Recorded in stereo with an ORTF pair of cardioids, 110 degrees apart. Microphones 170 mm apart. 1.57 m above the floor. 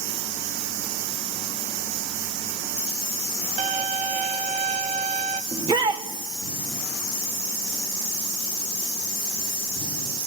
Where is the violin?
45° right, 1.2 m.